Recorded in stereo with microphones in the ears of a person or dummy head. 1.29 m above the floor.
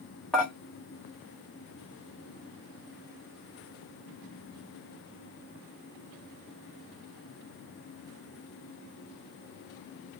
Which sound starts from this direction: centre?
Dishes clattering, at 0.3 s.